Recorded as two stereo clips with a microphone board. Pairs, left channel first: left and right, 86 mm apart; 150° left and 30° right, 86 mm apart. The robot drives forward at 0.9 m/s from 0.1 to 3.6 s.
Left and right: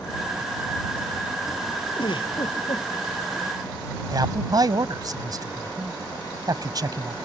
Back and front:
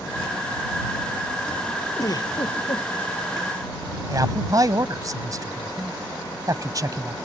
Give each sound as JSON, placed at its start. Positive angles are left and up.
{"t": 2.0, "sound": "a giggle", "azimuth_deg": 105}
{"t": 4.1, "sound": "a man speaking", "azimuth_deg": -65}